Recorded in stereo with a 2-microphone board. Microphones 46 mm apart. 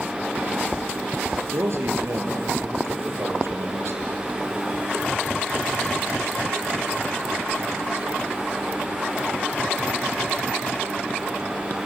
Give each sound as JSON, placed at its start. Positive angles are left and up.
{"t": 1.4, "sound": "a man speaking", "side_deg": -65, "distance_m": 4.0}